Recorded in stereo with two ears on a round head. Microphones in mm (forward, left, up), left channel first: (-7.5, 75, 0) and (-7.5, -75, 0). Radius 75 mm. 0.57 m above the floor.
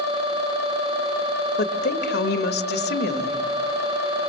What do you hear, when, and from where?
1.6 s a woman speaking: 65° left (ahead or behind), 2 m